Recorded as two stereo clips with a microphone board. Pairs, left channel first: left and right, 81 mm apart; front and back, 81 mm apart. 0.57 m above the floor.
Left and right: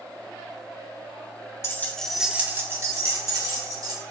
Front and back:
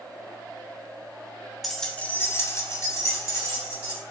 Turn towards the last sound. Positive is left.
turn(degrees=-50)